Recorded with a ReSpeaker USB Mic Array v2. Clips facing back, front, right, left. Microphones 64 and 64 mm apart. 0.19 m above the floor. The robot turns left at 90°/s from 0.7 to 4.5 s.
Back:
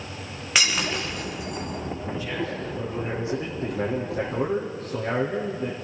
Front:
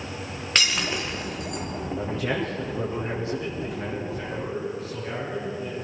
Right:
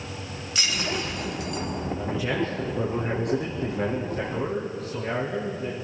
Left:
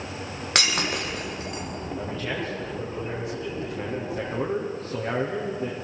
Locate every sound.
0.6 s breaking glass: 100° left, 6 m; by 1.6 s 15° left, 6 m
1.9 s a man speaking: 10° left, 6.5 m; by 5.7 s 135° left, 6.5 m